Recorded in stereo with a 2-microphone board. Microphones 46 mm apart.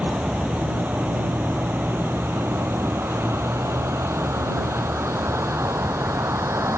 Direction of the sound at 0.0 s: 30° right (ahead or behind).